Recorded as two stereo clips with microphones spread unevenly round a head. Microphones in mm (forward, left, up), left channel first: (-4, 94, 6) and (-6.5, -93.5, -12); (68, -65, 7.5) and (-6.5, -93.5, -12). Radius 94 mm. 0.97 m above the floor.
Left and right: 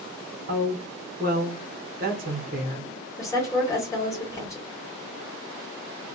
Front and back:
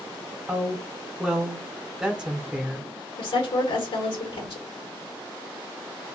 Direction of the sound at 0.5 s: 95° right.